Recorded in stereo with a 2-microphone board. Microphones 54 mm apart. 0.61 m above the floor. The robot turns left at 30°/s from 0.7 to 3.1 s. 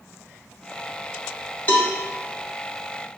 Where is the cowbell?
35° left (ahead or behind), 1.6 m.